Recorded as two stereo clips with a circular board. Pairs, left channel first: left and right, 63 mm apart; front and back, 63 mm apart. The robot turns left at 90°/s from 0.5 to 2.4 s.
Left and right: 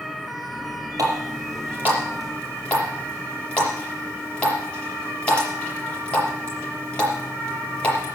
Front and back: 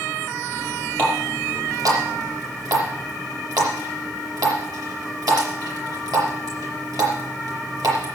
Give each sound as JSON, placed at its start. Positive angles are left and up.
{"t": 1.0, "sound": "a running tap", "azimuth_deg": -70, "distance_m": 5.5}